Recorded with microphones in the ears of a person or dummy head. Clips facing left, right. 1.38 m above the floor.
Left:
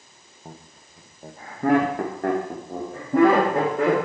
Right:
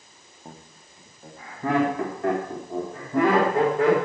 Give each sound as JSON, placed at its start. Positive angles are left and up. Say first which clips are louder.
{"t": 0.5, "sound": "laughter", "louder": "left 1 dB", "side_deg": 5, "distance_m": 0.8}